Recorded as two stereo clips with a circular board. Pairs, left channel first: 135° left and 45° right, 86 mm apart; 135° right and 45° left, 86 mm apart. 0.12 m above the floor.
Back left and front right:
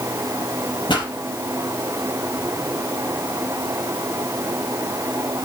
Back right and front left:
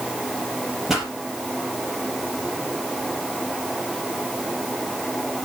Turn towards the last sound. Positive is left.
turn(degrees=130)